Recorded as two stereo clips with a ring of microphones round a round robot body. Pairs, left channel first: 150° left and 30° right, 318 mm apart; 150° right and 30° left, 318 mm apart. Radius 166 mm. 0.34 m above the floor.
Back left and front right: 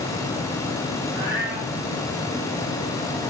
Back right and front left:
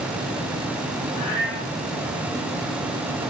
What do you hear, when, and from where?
1.1 s a cat meowing: 105° right, 6 m